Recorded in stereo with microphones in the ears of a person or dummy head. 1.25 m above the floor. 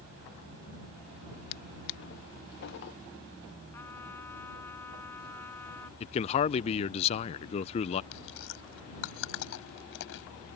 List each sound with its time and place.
1.5 s a drawer: 60° left (ahead or behind)
3.7 s a trumpet: 15° left (ahead or behind)
6.0 s a man speaking: 30° left (ahead or behind)
8.1 s chewing: 75° left (ahead or behind)